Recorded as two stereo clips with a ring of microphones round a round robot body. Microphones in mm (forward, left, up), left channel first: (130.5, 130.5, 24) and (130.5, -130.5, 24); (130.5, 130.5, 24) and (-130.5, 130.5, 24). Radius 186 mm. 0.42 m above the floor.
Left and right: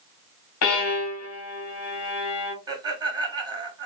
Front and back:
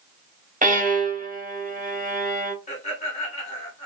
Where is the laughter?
35° right, 1.4 m.